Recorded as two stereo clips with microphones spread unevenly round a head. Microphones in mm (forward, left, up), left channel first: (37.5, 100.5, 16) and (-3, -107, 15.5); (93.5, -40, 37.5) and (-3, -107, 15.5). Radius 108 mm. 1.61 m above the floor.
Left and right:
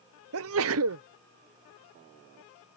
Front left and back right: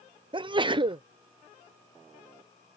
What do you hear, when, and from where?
0.3 s a sneeze: 95° right